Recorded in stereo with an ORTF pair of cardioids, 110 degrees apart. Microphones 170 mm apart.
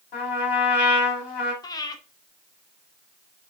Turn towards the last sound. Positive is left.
turn(degrees=20)